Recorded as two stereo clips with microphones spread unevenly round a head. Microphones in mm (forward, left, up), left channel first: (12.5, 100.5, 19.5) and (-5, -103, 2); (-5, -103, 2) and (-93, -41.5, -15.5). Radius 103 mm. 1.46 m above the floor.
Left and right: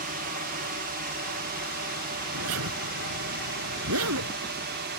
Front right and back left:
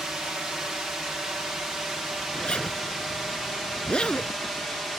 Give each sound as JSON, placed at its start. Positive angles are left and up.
{"t": 0.0, "sound": "a drone", "azimuth_deg": -130}
{"t": 2.3, "sound": "a zipper", "azimuth_deg": -115}